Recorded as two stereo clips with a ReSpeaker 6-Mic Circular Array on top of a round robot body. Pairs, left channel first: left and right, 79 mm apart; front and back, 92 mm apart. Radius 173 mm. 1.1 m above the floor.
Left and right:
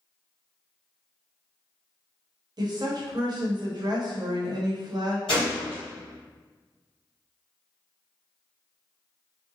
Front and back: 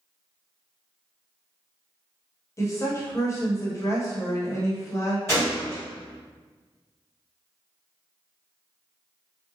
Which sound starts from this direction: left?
A gunshot, at 5.3 s.